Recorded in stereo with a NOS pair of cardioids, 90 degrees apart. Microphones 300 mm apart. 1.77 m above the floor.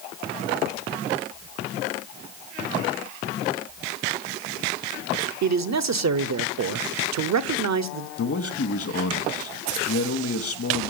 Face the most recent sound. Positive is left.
turn(degrees=55)